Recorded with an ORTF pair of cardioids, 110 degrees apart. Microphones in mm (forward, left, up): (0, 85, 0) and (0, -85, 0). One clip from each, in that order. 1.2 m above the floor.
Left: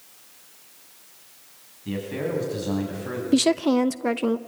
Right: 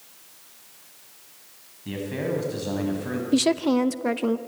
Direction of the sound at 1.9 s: 5° right.